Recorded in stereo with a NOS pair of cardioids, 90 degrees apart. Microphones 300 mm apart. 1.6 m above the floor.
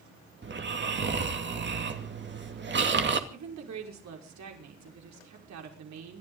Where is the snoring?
35° right, 2.5 m.